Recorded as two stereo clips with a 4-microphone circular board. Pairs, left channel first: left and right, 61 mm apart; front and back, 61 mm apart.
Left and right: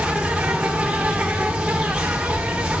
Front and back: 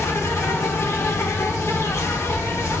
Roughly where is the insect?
Ahead.